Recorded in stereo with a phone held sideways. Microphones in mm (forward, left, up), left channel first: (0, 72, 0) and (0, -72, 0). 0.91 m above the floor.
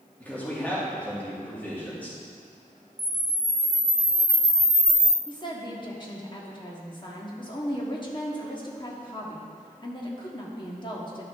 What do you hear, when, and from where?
0.2 s a man speaking: 10° left (ahead or behind), 2 m
3.0 s a camera shutter: 5° right (ahead or behind), 0.7 m
5.3 s a woman speaking: 30° left (ahead or behind), 1.4 m